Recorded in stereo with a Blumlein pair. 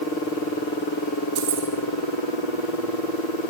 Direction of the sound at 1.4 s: 55° right.